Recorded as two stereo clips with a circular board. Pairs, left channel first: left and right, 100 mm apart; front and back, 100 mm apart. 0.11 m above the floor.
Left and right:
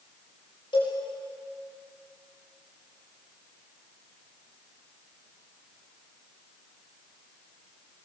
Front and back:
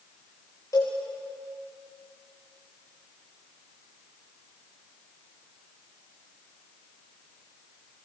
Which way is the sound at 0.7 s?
55° left.